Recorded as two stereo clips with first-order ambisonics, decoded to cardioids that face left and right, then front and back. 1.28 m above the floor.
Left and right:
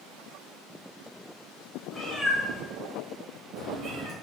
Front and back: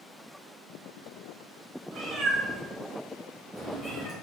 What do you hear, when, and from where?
1.9 s a cat meowing: 165° left, 1.2 m; by 4.1 s 80° right, 1.4 m